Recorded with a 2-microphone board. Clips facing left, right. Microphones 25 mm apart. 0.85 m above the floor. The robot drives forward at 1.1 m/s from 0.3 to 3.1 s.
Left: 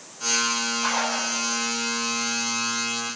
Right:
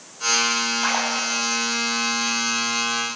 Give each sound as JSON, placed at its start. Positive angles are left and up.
{"t": 0.8, "sound": "a splash", "side_deg": -35, "distance_m": 6.5}